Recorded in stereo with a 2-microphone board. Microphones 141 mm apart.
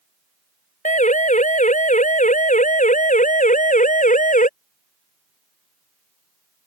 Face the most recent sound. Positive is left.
turn(degrees=70)  # may be behind; listen again after turning